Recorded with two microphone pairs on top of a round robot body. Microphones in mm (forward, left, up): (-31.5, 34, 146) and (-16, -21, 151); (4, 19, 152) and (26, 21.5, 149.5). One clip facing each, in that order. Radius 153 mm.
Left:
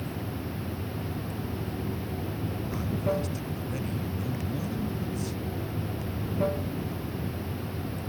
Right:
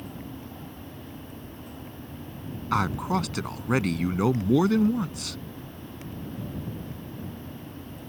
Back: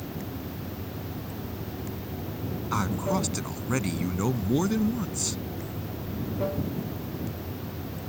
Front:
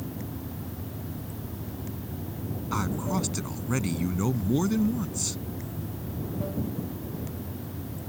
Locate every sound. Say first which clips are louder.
0.0 s running water: left 4 dB, back 1 dB; 125° left
2.7 s a man speaking: right 5 dB, back 2 dB; 90° right